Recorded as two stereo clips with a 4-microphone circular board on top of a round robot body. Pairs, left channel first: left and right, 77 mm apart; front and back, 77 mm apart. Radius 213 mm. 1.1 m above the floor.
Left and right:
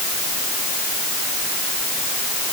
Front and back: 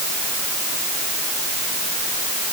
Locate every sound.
Only background noise.